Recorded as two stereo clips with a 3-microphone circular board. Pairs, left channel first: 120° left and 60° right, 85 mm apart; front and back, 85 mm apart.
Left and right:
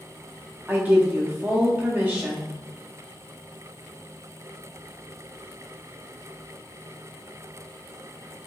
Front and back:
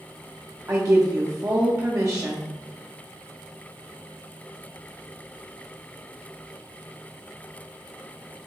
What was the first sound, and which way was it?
A woman speaking, 130° right.